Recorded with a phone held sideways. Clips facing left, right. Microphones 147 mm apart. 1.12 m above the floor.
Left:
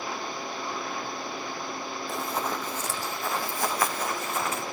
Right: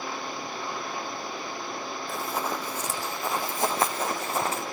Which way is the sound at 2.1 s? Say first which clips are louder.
Even; centre (ahead or behind).